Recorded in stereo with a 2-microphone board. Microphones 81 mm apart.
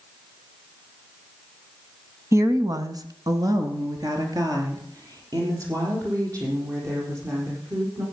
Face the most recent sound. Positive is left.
turn(degrees=-45)  # may be behind; listen again after turning